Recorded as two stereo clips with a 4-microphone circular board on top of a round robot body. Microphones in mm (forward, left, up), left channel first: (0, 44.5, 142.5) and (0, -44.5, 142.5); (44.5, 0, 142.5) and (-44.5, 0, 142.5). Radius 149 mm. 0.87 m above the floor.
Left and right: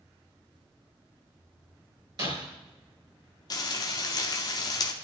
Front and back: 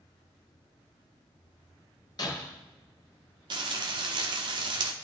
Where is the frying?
140° left, 0.7 m.